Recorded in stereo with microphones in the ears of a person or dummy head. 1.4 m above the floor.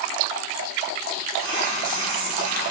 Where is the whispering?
80° right, 3 m.